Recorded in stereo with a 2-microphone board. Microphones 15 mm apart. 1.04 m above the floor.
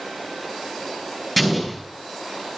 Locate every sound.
1.4 s an explosion: 5° left (ahead or behind), 6 m